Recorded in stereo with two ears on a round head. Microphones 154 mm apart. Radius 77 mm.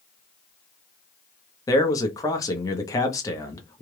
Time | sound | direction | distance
1.7 | a man speaking | 20° left (ahead or behind) | 0.8 m